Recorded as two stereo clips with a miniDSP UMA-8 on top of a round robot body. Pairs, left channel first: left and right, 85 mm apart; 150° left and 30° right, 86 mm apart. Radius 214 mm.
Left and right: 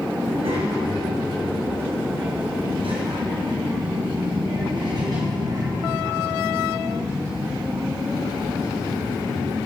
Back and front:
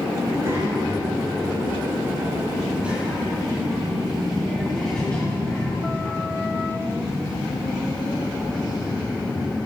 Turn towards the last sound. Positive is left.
turn(degrees=-170)